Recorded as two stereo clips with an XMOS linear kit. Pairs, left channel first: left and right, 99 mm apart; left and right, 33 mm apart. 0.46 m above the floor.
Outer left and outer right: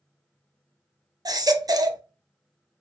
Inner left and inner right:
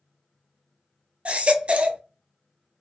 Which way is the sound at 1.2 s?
45° right (ahead or behind).